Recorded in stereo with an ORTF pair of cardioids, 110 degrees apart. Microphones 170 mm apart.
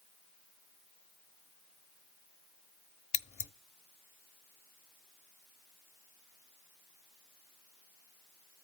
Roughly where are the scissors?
Ahead left.